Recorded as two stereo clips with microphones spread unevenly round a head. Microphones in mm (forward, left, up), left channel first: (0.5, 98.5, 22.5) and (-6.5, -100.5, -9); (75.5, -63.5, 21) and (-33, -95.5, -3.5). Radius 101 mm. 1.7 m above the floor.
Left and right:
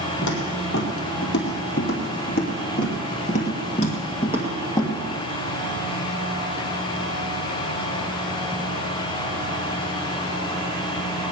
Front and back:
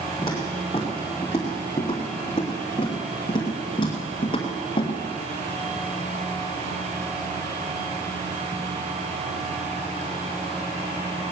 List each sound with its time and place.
0.2 s footsteps: 80° left, 3.5 m; by 4.9 s 25° left, 2.5 m